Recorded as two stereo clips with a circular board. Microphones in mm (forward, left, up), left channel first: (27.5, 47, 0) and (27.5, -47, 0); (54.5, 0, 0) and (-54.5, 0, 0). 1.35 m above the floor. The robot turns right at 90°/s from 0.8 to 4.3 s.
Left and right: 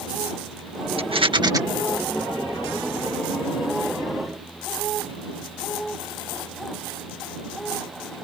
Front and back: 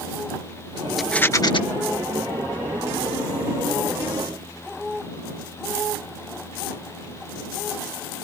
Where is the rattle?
90° right; by 1.6 s 35° right.